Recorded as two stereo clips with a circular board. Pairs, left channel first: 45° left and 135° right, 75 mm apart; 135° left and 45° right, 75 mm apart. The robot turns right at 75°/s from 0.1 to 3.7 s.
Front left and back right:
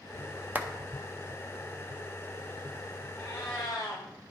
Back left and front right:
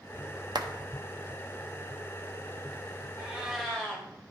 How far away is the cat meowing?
About 1.6 m.